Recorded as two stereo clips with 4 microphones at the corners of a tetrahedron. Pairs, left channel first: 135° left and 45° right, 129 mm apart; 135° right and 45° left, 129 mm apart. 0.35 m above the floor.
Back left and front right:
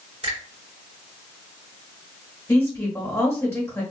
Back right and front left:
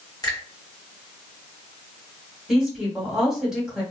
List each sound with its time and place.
0.2 s a finger snap: 75° right, 1.9 m
2.5 s a woman speaking: 125° left, 1.4 m